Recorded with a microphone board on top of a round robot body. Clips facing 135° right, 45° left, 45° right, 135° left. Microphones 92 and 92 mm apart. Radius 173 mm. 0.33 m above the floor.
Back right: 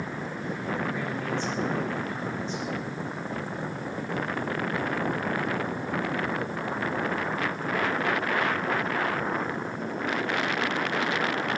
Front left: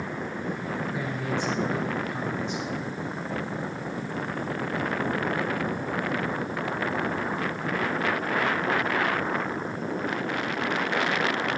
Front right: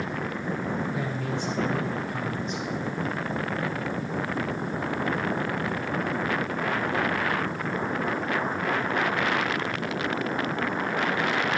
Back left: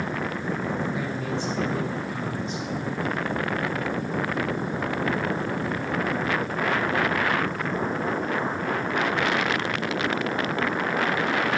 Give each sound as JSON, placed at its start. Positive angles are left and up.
{"t": 0.9, "sound": "a man speaking", "azimuth_deg": -30, "distance_m": 4.0}